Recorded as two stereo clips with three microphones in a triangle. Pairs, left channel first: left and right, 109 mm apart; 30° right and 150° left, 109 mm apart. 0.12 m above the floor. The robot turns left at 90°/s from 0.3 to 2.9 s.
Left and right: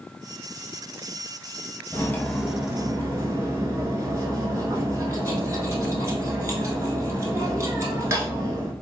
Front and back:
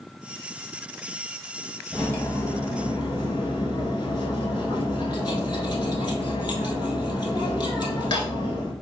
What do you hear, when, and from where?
1.9 s cutlery clinking: 50° left, 0.8 m; by 8.7 s 40° right, 0.8 m